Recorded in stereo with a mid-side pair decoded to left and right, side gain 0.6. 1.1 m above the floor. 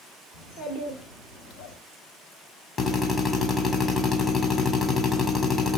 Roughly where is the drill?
Ahead left.